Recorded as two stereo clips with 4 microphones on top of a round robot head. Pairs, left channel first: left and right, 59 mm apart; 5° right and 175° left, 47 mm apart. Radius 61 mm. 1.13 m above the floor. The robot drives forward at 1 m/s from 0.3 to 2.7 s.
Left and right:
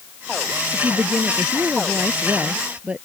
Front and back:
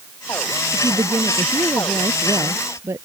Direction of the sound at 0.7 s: 155° right.